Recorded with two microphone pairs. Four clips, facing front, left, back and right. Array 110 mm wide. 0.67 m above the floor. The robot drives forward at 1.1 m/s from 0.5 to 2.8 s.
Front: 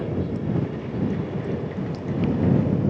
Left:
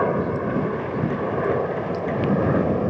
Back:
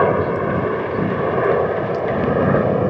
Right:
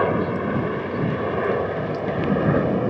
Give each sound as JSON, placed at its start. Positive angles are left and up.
{"t": 0.0, "sound": "a helicopter", "azimuth_deg": -170}